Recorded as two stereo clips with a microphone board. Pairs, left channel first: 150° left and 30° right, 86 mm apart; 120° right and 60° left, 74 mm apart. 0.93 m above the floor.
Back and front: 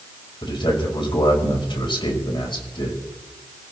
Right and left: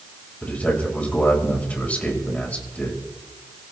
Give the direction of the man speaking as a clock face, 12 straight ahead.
6 o'clock.